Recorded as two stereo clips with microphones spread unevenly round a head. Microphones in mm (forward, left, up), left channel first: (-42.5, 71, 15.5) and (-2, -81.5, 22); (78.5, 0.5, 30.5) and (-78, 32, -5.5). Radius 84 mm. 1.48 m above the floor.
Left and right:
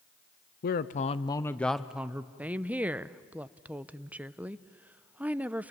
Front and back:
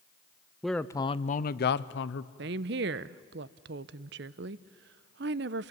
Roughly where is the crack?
No crack in this recording.